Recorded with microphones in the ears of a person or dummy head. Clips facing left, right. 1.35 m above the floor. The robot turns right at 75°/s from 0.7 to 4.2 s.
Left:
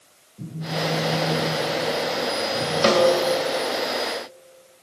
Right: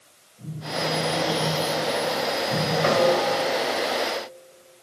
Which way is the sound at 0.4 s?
130° left.